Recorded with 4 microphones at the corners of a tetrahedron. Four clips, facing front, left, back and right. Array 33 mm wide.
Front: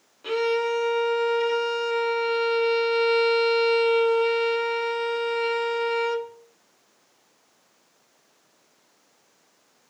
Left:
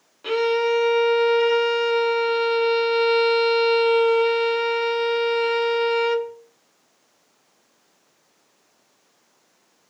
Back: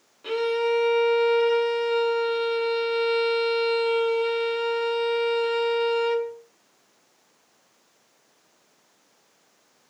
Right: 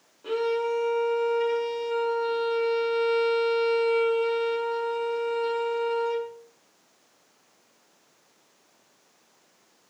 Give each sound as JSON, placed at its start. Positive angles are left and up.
{"t": 0.2, "sound": "a violin", "azimuth_deg": 90, "distance_m": 1.8}